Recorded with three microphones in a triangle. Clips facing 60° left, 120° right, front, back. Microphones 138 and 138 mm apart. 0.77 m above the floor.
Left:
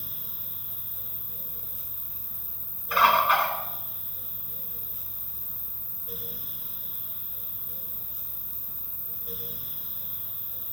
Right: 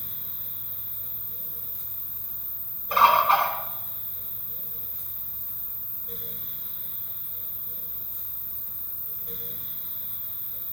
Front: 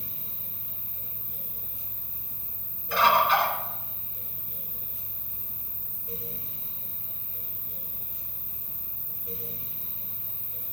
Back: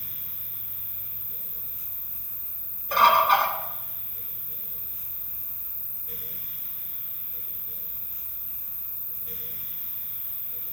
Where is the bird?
165° right, 1.8 m.